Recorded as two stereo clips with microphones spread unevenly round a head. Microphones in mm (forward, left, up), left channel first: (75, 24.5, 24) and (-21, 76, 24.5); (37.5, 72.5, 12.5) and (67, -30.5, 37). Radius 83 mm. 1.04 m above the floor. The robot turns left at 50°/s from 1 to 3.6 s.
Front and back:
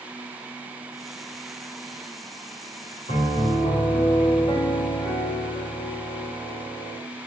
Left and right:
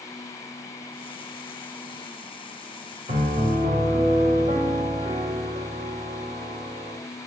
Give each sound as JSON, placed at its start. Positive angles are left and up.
{"t": 3.1, "sound": "a piano", "azimuth_deg": -80, "distance_m": 2.0}